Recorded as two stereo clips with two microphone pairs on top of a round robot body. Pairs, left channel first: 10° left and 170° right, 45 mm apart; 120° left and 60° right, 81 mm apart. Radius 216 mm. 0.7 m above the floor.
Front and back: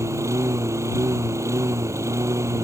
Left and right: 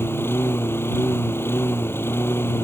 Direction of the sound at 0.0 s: 175° right.